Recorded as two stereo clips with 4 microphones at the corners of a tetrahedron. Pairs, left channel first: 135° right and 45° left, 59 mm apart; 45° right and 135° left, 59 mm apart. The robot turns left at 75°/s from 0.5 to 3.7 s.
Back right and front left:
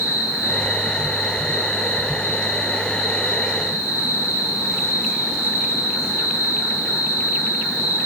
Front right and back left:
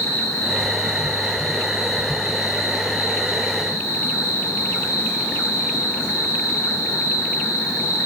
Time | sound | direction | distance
0.0 | an insect | straight ahead | 1.9 m